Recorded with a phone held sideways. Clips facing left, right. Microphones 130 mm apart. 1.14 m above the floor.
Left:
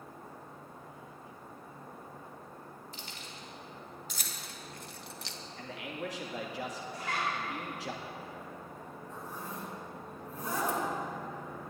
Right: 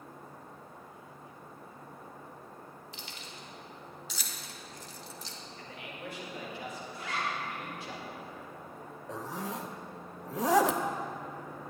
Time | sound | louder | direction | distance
2.9 | keys jangling | even | 45° left (ahead or behind) | 2.5 m
5.6 | a man speaking | left 6 dB | 80° left | 2.0 m
6.9 | a zipper | left 1 dB | 50° left (ahead or behind) | 3 m
9.1 | a zipper | right 6 dB | 80° right | 0.8 m